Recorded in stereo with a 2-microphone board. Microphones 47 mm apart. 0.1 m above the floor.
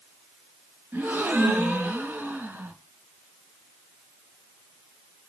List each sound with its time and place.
0.9 s a gasp: 40° right (ahead or behind), 2 m